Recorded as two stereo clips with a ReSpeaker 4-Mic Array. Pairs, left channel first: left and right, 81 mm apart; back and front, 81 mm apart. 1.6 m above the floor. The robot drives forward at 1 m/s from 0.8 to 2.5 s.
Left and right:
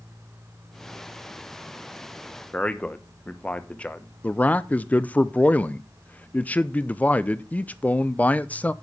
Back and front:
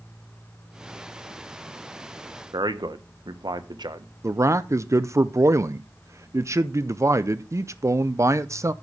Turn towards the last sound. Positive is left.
turn(degrees=25)